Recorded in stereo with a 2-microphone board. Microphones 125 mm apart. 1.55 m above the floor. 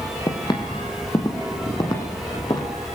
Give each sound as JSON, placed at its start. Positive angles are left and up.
{"t": 0.3, "sound": "footsteps", "side_deg": 35, "distance_m": 3.0}